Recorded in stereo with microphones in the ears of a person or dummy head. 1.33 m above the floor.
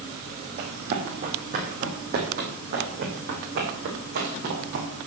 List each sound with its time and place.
0.6 s running footsteps: 40° right (ahead or behind), 3.5 m; by 4.9 s 55° right (ahead or behind), 5.5 m